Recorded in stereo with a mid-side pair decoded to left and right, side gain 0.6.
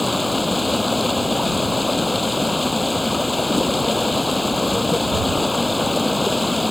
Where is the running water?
10° left.